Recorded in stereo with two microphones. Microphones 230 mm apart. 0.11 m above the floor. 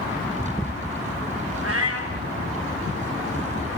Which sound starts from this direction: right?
A cat meowing, at 1.6 s.